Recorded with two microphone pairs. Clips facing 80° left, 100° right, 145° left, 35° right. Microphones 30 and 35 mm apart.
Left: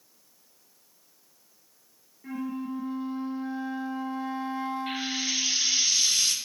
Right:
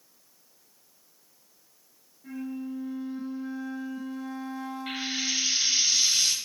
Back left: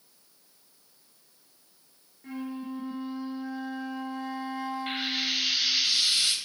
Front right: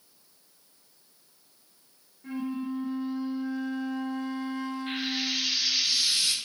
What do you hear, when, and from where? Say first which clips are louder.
2.2 s a flute: left 2 dB, front right 3 dB; 70° left, 1.1 m
4.9 s frying: even, back left 1 dB; 175° left, 1.2 m